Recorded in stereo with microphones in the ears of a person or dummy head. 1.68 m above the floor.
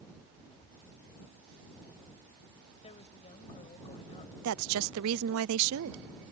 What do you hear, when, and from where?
2.8 s a woman speaking: 30° left (ahead or behind)
4.4 s a woman speaking: 80° right